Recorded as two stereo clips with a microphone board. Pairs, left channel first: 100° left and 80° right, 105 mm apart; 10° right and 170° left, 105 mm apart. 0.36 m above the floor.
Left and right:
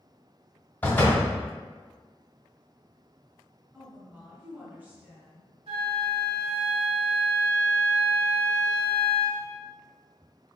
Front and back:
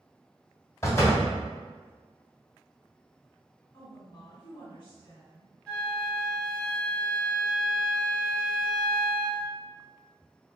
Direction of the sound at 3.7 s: 10° right.